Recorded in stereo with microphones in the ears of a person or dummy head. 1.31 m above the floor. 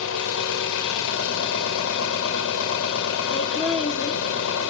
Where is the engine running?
75° left (ahead or behind), 1.6 m.